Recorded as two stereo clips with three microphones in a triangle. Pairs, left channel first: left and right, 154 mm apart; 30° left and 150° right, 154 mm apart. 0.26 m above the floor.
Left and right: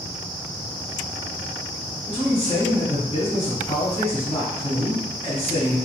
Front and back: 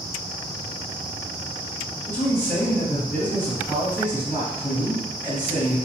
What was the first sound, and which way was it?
A man speaking, 100° left.